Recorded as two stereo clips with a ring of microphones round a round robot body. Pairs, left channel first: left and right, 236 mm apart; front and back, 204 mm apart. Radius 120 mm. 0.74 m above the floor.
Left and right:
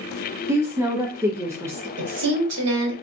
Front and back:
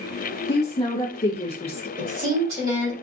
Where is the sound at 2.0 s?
105° right, 2.5 m.